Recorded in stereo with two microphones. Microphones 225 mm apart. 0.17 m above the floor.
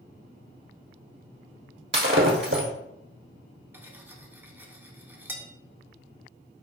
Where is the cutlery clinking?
10° right (ahead or behind), 0.6 m.